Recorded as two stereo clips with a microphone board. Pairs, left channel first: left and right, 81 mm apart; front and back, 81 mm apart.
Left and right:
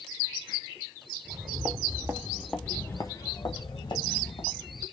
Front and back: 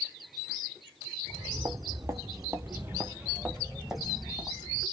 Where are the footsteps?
115° right, 1.0 m; by 4.8 s 90° left, 1.6 m.